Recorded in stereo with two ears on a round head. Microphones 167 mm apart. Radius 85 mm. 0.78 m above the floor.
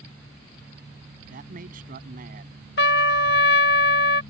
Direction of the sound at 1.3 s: 50° right (ahead or behind).